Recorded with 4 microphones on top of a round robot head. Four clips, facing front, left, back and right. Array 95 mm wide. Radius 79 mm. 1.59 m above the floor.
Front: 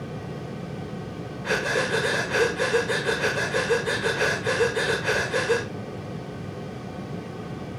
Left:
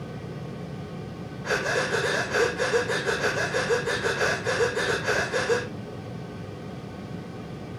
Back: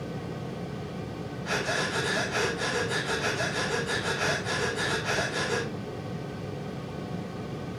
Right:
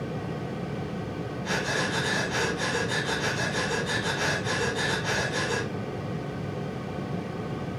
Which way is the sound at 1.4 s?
40° left.